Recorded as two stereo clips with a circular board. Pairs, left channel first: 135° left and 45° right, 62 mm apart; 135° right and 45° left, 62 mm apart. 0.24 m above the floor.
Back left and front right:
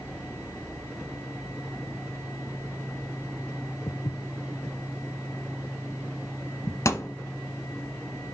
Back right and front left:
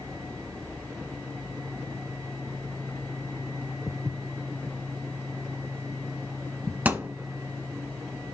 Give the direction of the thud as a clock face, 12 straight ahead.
8 o'clock.